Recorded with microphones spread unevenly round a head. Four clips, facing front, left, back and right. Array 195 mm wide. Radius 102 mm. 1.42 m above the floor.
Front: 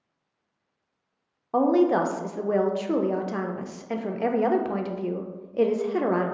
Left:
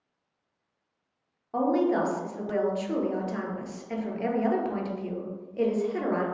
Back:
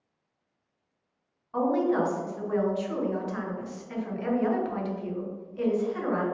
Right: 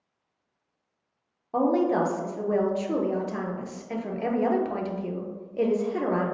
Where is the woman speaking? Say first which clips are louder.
Right 2 dB, front 5 dB; 20° right, 0.5 m.